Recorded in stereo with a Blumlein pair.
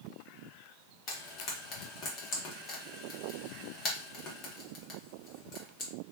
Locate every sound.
1.1 s frying: 35° left, 1.1 m